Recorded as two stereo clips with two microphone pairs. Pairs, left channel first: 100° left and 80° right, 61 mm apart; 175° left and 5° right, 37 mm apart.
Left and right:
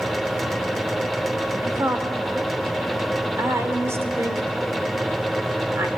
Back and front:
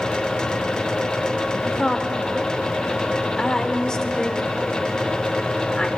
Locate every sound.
1.6 s a woman speaking: 115° right, 2 m